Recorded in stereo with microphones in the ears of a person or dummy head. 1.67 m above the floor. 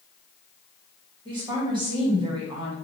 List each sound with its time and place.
1.2 s a woman speaking: 25° right (ahead or behind), 1.0 m